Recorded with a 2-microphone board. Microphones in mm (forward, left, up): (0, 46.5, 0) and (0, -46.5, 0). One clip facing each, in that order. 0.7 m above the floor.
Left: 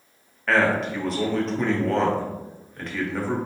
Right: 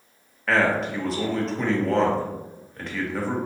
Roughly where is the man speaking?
Centre.